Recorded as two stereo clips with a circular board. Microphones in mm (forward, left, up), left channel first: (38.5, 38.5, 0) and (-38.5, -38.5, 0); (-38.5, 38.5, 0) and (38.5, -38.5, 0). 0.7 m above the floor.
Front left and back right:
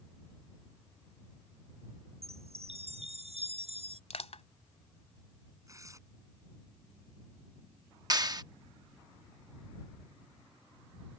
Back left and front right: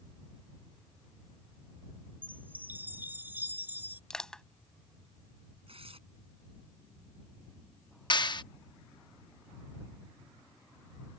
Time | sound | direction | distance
2.2 | a chime | 120° right | ?
4.1 | crushing | 50° left | ?
5.7 | tearing paper | 75° right | ?
8.1 | a clap | 175° left | ?